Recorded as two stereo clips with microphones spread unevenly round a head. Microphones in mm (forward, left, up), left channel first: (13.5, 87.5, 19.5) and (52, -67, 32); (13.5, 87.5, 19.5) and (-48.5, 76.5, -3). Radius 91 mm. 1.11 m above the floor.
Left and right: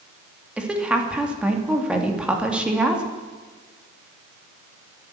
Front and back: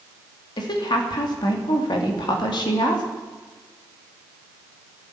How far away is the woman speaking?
About 2.5 m.